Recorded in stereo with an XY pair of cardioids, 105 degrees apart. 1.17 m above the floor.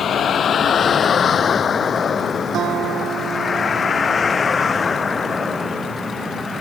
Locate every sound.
0.0 s a vehicle: 55° left; by 6.6 s 30° left
2.5 s a guitar: 65° right